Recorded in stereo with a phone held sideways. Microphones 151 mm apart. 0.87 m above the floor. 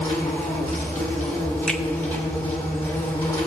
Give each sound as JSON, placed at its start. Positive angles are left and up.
{"t": 0.0, "sound": "an insect", "side_deg": 15, "distance_m": 2.5}
{"t": 1.7, "sound": "a finger snap", "side_deg": 5, "distance_m": 0.8}